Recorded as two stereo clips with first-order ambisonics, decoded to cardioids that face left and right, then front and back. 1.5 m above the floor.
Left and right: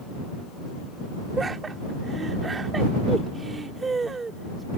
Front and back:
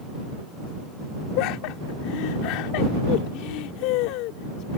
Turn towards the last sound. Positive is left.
turn(degrees=-15)